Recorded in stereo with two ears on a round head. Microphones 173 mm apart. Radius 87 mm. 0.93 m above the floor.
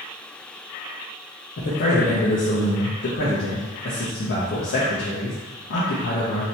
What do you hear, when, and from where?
1.6 s a man speaking: 60° left (ahead or behind), 0.8 m